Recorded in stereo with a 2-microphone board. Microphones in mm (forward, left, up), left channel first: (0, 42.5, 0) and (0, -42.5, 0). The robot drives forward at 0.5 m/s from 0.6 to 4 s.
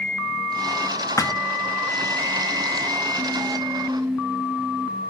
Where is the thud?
40° left (ahead or behind), 0.7 m.